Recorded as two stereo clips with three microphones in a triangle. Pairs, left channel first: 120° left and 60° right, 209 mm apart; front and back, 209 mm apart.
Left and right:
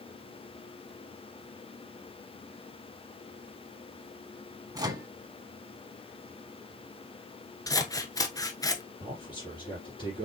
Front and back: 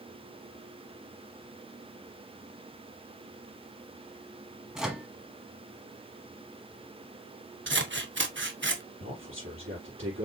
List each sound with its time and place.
4.8 s a microwave: 95° right, 1.0 m
7.7 s scissors: 170° right, 0.8 m
9.0 s a man speaking: 175° right, 3.5 m